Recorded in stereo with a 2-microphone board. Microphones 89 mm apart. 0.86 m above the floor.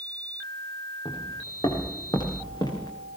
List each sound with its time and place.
1.1 s footsteps: 50° left (ahead or behind), 6 m; by 2.9 s 45° left (ahead or behind), 5.5 m